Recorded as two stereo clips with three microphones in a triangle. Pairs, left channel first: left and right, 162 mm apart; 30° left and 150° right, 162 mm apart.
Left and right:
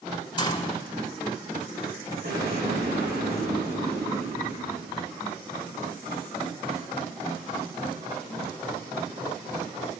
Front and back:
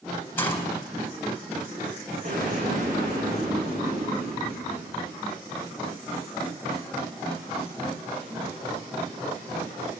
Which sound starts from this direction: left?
A gunshot, at 0.4 s.